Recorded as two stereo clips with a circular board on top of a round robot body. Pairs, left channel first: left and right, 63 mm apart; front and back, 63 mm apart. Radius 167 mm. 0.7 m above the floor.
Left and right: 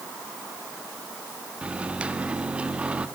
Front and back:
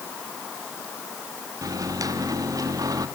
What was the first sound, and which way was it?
A microwave, 160° right.